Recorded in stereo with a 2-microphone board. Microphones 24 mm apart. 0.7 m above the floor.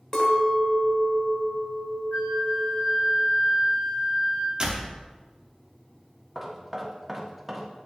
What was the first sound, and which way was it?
A clink, 25° left (ahead or behind).